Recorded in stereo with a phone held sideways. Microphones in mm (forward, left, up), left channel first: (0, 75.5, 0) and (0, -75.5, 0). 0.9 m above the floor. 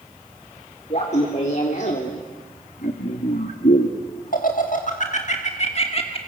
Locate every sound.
0.9 s laughter: 45° left (ahead or behind), 2.5 m; by 6.2 s 40° left (ahead or behind), 2.0 m